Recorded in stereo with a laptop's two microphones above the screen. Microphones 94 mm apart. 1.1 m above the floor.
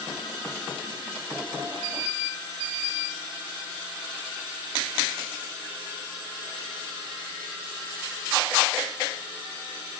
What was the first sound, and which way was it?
Only background noise.